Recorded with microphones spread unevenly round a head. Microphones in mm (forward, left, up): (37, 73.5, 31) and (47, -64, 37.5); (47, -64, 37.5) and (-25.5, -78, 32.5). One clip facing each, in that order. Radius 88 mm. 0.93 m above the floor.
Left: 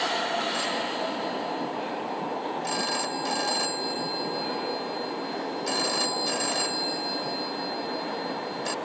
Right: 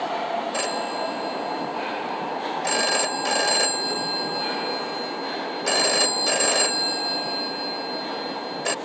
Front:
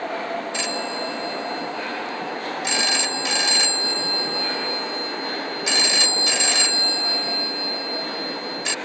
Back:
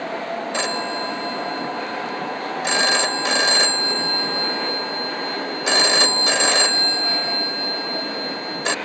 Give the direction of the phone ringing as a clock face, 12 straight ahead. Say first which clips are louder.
Right 3 dB, back 3 dB; 4 o'clock.